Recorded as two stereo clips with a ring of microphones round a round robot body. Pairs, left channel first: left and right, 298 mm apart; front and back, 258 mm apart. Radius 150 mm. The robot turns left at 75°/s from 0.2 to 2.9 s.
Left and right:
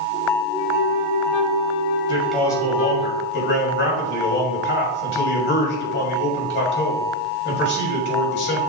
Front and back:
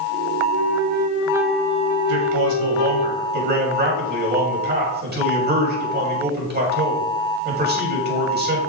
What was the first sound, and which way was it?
A flute, 165° left.